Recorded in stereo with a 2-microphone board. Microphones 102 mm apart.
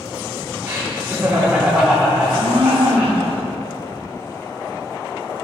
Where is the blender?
65° right (ahead or behind), 1.4 m.